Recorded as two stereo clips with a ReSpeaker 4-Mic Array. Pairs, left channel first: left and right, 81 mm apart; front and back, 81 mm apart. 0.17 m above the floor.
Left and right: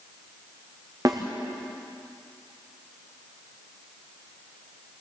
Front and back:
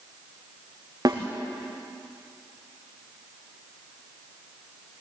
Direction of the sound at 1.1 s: 140° right.